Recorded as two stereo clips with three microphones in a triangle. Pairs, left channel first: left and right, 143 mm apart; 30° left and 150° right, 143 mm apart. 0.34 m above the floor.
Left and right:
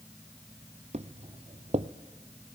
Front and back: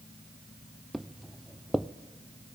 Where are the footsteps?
60° right, 0.7 m.